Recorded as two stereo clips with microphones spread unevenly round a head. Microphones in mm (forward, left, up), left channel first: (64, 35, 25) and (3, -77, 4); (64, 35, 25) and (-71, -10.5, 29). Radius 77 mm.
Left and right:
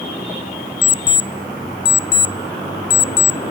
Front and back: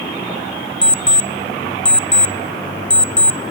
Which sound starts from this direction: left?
An alarm clock, at 0.8 s.